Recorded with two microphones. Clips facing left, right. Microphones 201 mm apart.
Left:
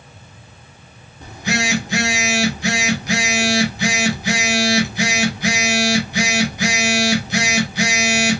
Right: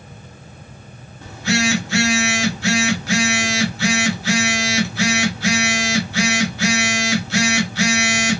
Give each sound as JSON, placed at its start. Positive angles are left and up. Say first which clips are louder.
{"t": 1.2, "sound": "a phone buzzing", "louder": "right 3 dB", "side_deg": 15, "distance_m": 1.1}